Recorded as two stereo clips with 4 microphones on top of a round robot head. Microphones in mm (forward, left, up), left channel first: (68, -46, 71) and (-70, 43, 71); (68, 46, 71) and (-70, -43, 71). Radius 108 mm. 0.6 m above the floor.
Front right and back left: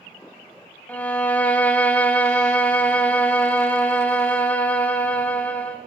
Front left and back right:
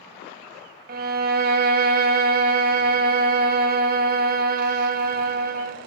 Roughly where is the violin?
Behind right.